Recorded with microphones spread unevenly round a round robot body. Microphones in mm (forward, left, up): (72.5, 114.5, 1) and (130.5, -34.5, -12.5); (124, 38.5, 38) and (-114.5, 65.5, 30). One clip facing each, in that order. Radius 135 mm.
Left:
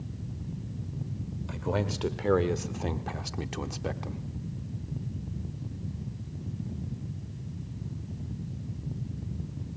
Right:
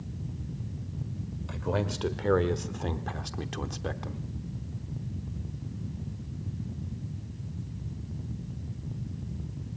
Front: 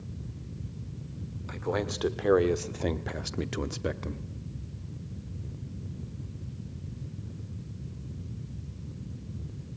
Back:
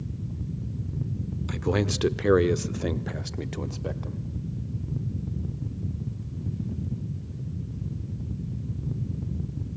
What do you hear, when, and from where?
1.5 s a man speaking: 155° right, 1.4 m; by 4.2 s 25° left, 1.1 m